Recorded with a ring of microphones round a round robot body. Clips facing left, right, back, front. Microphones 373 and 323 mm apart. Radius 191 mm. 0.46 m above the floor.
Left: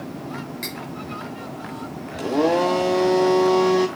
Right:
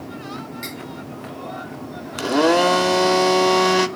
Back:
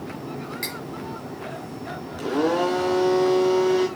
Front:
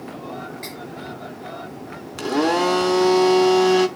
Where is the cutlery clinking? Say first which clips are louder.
Even, even; 165° left, 5 m.